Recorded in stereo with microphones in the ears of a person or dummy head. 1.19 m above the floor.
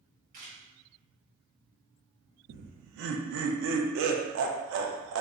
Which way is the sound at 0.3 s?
40° right (ahead or behind).